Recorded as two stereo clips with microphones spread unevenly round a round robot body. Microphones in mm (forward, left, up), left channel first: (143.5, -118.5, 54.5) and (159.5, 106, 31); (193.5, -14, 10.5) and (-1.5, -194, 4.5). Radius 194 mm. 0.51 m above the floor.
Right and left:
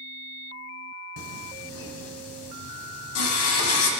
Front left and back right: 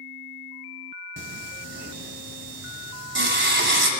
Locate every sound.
1.2 s singing: 85° right, 1.6 m